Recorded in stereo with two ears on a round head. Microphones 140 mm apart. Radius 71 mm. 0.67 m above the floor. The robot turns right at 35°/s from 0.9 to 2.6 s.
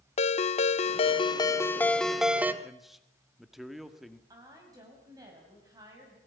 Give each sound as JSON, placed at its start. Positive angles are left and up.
{"t": 0.2, "sound": "a ringtone", "azimuth_deg": 135, "distance_m": 0.8}
{"t": 2.6, "sound": "a man speaking", "side_deg": 0, "distance_m": 1.5}
{"t": 4.3, "sound": "a woman speaking", "side_deg": -25, "distance_m": 4.5}